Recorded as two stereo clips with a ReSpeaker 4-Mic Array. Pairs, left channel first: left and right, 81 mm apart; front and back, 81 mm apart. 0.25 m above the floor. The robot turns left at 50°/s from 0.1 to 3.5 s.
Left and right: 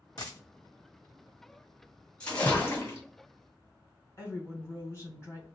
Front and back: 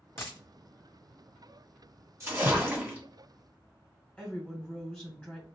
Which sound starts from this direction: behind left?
A splash, at 2.2 s.